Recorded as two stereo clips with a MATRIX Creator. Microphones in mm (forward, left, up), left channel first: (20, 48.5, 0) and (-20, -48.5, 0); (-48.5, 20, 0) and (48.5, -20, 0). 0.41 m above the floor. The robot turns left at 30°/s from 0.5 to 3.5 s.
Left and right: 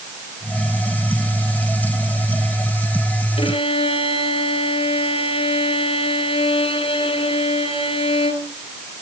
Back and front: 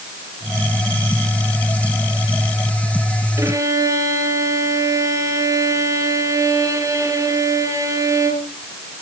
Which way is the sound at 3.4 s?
40° left.